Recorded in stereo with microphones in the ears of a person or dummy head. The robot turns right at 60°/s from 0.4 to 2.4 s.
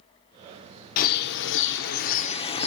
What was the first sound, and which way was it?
A bird, 55° left.